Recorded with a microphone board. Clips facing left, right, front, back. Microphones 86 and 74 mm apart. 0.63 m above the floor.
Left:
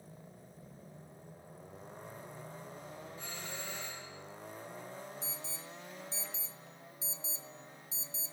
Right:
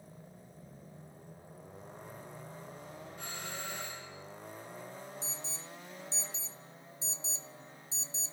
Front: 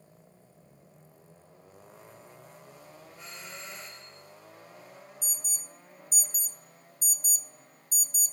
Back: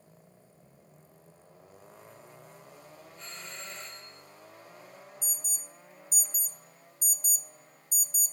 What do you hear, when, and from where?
3.2 s a doorbell: 80° right, 3 m
5.2 s an alarm: 30° right, 0.5 m